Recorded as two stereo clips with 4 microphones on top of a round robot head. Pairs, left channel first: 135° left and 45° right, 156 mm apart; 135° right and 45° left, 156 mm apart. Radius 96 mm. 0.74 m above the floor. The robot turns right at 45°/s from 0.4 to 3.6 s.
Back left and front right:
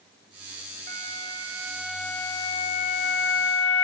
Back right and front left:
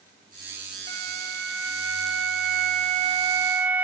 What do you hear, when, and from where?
0.9 s a flute: straight ahead, 0.6 m; by 3.9 s 120° left, 0.6 m